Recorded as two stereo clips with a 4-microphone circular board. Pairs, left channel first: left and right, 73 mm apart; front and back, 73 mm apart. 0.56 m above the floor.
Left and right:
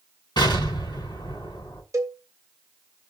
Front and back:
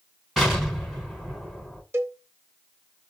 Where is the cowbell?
130° right, 0.7 m.